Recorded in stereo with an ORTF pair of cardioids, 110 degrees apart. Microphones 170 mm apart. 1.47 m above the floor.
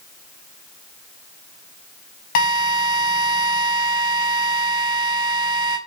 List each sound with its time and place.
2.4 s a drill: 55° left, 4 m